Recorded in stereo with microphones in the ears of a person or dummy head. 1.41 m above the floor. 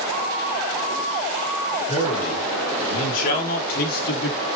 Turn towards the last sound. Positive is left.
turn(degrees=55)  # may be behind; listen again after turning